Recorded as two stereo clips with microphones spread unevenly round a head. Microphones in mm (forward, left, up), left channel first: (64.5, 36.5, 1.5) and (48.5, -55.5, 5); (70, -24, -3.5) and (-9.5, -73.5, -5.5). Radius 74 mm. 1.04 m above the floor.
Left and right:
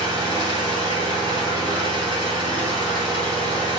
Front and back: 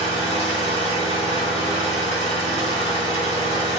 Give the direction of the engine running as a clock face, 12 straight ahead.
6 o'clock.